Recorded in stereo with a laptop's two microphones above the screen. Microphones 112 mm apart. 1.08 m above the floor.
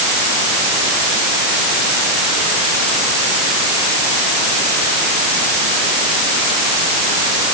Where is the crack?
No crack in this recording.